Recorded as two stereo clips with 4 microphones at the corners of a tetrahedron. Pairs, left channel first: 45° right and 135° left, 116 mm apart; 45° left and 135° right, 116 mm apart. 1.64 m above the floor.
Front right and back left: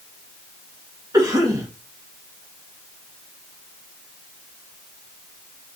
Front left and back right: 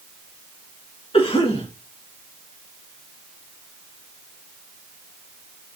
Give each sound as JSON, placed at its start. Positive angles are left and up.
{"t": 1.1, "sound": "a cough", "azimuth_deg": 80, "distance_m": 1.8}